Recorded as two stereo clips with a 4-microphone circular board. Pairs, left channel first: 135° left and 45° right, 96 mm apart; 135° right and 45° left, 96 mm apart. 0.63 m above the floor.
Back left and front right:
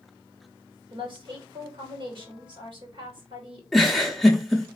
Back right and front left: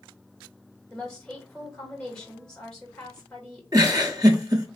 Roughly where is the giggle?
Ahead left.